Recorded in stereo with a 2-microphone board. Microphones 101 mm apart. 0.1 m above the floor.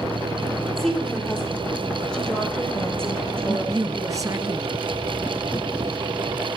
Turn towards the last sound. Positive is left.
turn(degrees=-35)  # may be behind; listen again after turning